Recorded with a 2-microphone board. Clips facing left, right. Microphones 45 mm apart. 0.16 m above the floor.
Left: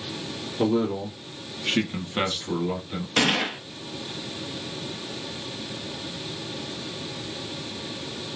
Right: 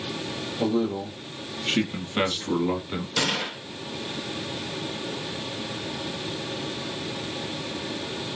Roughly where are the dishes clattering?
I don't hear dishes clattering.